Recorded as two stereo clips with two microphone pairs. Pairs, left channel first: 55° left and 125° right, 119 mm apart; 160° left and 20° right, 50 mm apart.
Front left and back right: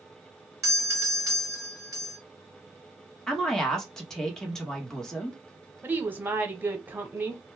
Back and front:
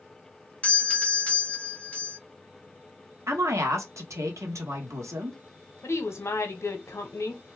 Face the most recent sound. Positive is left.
turn(degrees=160)